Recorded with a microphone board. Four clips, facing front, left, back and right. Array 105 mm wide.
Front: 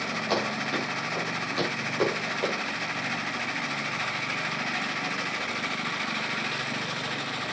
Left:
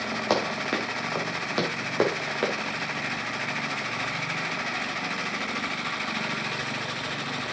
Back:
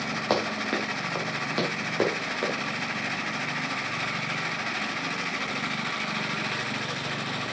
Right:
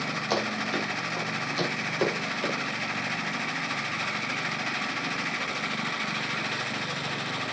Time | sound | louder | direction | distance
0.3 | running footsteps | left 3 dB, back 2 dB | 125° left | 4.5 m